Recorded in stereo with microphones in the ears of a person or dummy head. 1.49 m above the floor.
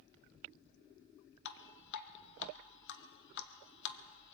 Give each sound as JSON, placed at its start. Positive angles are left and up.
{"t": 1.4, "sound": "dripping", "side_deg": 65, "distance_m": 0.9}